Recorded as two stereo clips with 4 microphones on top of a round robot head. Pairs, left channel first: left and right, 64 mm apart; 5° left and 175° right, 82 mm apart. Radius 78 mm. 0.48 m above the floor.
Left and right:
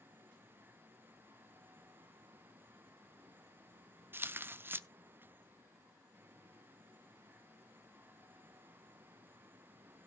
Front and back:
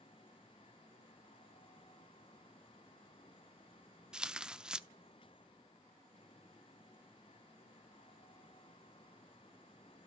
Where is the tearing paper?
105° right, 0.6 m.